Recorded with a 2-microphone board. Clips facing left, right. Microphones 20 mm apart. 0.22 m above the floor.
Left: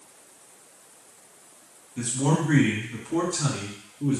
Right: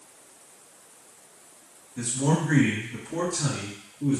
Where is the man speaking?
50° left (ahead or behind), 1.6 m; by 4.2 s 45° left (ahead or behind), 2 m.